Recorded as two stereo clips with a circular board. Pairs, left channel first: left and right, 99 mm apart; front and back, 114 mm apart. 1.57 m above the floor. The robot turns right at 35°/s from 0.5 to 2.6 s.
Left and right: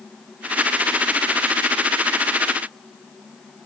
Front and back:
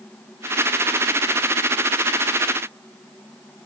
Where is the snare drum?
No snare drum in this recording.